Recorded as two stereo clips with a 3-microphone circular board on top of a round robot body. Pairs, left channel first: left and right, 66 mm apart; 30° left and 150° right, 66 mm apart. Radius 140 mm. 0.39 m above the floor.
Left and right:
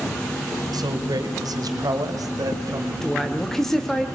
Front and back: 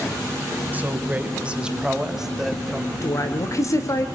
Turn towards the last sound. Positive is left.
turn(degrees=5)